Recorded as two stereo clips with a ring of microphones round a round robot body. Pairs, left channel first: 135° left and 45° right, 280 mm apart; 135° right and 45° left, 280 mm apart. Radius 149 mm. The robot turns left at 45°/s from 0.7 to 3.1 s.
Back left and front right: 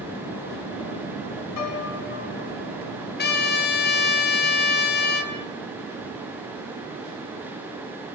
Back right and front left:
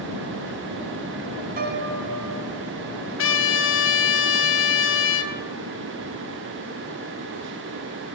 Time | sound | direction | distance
1.6 | a piano | 105° left | 2.5 m
3.2 | a trumpet | 175° right | 3.5 m